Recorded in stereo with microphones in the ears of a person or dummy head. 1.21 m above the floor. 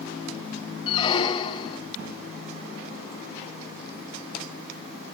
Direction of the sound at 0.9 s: 25° left (ahead or behind).